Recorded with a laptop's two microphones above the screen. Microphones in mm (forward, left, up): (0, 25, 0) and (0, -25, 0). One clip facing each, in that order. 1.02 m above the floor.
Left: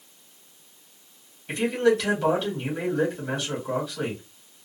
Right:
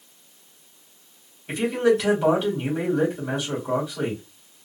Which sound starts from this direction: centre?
A man speaking, at 1.5 s.